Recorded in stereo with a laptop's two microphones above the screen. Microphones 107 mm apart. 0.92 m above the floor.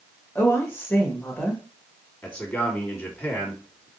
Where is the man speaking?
20° left (ahead or behind), 1.6 m.